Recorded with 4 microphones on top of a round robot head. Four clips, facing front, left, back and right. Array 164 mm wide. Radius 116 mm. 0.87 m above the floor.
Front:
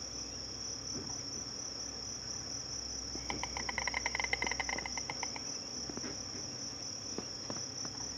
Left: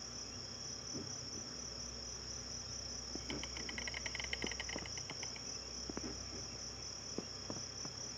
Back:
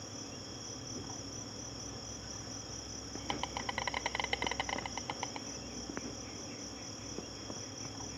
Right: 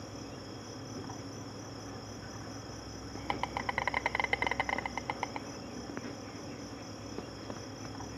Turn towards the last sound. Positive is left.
turn(degrees=-105)